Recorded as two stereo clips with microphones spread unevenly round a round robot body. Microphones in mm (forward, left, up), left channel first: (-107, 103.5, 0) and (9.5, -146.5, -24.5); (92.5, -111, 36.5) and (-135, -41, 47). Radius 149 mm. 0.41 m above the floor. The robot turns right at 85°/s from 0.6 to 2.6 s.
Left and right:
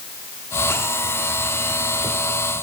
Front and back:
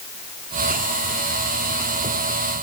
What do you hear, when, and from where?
Only background noise.